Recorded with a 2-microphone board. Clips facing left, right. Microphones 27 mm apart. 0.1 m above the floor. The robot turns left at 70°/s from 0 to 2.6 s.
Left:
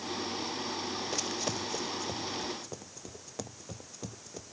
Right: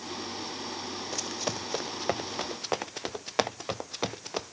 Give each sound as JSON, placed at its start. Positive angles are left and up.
{"t": 1.1, "sound": "running footsteps", "side_deg": 5}